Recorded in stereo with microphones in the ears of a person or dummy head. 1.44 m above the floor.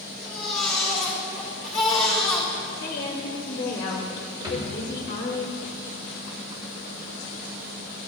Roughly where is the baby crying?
Centre.